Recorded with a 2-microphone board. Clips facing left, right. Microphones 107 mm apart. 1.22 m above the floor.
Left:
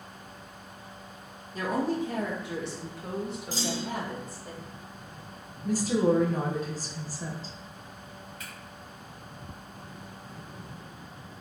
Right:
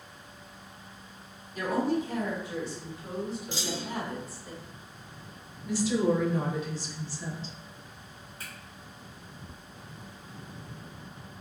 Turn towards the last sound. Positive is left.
turn(degrees=-35)  # may be behind; listen again after turning